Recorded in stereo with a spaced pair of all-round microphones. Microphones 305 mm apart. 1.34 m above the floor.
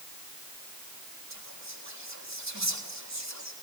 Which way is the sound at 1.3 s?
70° right (ahead or behind).